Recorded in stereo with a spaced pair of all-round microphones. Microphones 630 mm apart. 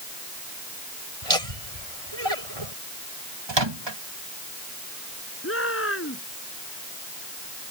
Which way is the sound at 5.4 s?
20° left (ahead or behind).